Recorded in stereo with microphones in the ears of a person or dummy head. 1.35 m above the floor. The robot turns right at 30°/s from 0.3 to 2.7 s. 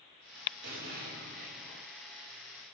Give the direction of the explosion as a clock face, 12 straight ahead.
2 o'clock.